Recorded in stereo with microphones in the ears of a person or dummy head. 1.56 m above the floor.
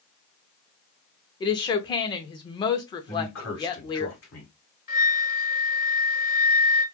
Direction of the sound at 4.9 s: 50° left (ahead or behind).